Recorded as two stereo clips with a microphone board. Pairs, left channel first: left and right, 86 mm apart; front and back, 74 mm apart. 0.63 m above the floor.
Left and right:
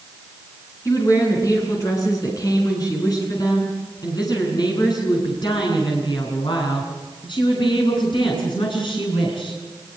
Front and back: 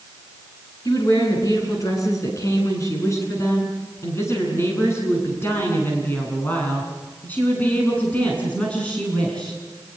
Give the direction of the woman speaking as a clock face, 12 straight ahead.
11 o'clock.